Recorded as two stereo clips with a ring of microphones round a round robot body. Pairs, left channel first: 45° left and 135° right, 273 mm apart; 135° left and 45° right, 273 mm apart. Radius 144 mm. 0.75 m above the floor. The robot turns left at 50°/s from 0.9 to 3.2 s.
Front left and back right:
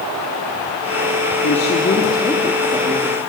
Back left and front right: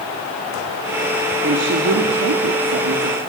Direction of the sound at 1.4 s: 5° left.